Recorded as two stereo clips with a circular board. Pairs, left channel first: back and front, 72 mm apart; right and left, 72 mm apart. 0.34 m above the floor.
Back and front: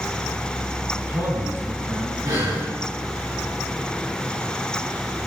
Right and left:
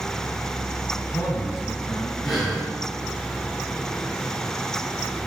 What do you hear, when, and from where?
0.9 s a man speaking: 50° right, 3.5 m
2.2 s breathing: straight ahead, 5.5 m